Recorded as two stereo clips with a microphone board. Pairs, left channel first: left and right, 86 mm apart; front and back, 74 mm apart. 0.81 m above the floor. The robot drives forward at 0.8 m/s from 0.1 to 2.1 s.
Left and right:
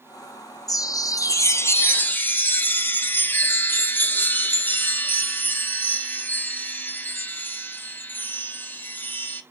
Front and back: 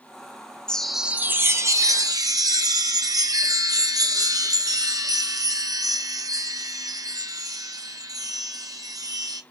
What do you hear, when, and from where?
0.7 s a chime: 75° left, 0.7 m; by 9.4 s 155° left, 1.2 m